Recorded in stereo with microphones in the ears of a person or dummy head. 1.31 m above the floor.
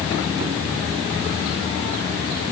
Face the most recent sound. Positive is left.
No sound to turn to.